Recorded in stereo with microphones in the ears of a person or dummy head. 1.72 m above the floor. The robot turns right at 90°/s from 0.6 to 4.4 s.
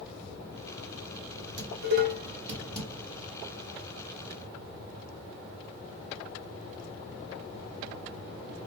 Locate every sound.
1.6 s dishes clattering: 70° right (ahead or behind), 2 m; by 2.9 s 20° left (ahead or behind), 2 m